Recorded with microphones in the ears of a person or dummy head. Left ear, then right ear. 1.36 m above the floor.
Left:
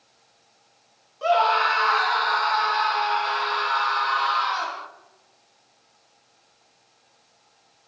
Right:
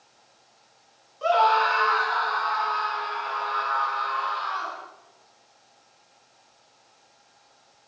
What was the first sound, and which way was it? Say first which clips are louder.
A scream: even; 5° left (ahead or behind).